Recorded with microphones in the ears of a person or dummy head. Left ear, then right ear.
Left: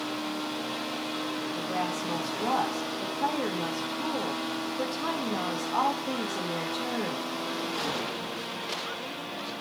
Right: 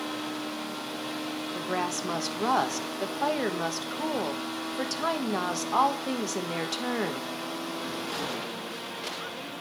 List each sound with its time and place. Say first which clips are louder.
1.6 s a woman speaking: right 2 dB; 80° right, 1.1 m